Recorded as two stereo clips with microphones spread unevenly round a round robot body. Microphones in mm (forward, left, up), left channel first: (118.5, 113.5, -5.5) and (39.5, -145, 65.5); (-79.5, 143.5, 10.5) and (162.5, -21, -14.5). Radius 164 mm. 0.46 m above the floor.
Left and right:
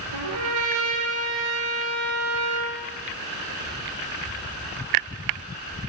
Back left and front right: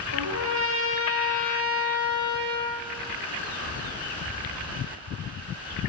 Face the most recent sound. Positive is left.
turn(degrees=-90)